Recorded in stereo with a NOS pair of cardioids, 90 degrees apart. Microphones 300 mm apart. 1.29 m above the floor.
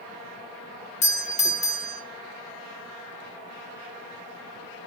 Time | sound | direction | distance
1.0 | a doorbell | 20° left | 1.3 m